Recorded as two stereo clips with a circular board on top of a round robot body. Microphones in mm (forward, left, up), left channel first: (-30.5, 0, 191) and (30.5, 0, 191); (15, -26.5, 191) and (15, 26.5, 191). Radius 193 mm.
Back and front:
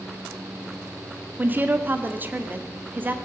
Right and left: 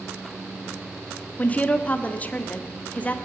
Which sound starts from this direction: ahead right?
A woman speaking, at 1.4 s.